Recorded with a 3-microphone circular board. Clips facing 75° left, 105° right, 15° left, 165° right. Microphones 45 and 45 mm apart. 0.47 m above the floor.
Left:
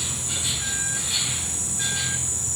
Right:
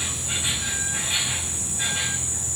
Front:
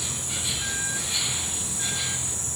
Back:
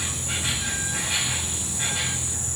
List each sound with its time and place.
0.0 s an insect: 160° right, 3.5 m